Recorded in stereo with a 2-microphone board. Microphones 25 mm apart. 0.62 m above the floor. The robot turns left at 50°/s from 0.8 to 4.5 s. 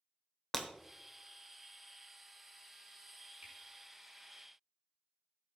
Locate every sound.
0.5 s breaking glass: 20° left (ahead or behind), 1.1 m
3.4 s a finger snap: 85° right, 4.5 m